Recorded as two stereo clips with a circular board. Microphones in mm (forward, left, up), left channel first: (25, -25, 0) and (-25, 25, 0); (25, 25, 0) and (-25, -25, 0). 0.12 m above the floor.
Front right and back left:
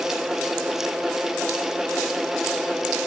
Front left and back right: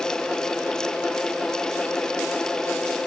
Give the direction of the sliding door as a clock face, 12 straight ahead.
No sliding door in this recording.